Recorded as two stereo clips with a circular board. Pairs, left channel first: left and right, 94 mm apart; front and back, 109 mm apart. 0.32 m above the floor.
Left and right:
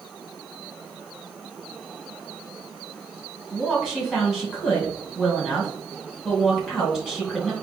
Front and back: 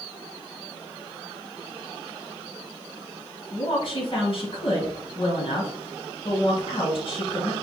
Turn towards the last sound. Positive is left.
turn(degrees=-5)